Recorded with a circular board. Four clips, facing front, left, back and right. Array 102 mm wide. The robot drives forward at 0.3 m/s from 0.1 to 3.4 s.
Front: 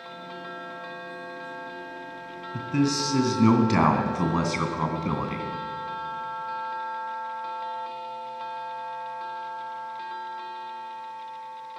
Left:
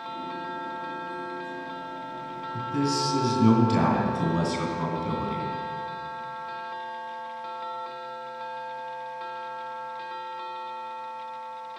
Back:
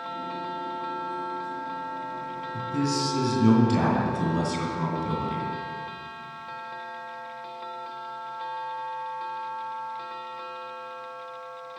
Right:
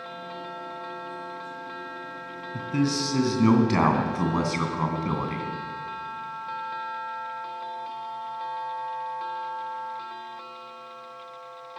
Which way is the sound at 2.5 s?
50° right.